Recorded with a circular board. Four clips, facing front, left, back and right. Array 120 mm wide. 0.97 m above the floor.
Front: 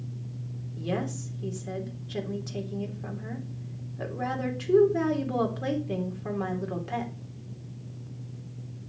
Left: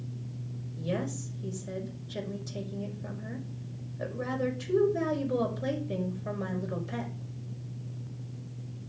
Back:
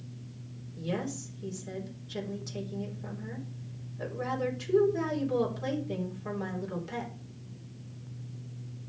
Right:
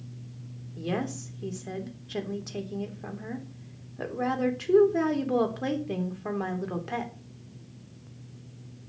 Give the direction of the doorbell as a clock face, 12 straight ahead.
No doorbell in this recording.